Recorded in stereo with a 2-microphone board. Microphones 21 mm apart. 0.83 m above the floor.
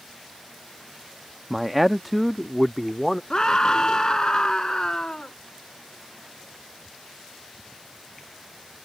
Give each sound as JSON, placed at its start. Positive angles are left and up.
{"t": 1.5, "sound": "a man speaking", "side_deg": -10}
{"t": 3.3, "sound": "a scream", "side_deg": 30}